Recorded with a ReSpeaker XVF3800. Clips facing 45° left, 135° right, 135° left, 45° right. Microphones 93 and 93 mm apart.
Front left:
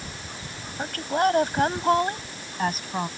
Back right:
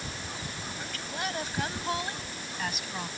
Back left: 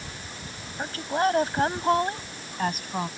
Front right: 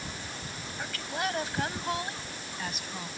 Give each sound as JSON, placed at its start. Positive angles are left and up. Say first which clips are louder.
{"t": 0.8, "sound": "a woman speaking", "louder": "front left 14 dB, back left 9 dB", "azimuth_deg": 80}